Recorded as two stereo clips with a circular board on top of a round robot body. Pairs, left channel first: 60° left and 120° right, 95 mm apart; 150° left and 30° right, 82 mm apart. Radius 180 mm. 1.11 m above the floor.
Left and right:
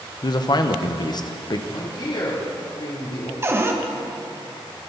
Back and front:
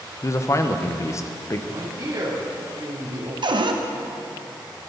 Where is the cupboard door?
55° right, 1.1 m.